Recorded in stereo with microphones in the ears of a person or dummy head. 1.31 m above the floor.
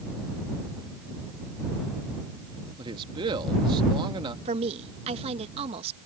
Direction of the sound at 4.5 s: 30° right (ahead or behind).